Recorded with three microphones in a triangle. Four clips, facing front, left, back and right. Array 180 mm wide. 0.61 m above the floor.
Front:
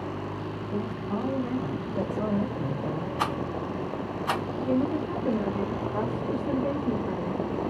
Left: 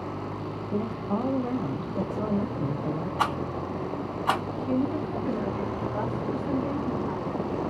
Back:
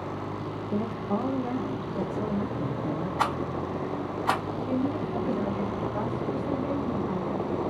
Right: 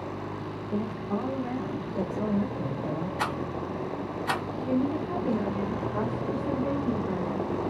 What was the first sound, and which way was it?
A woman speaking, 155° left.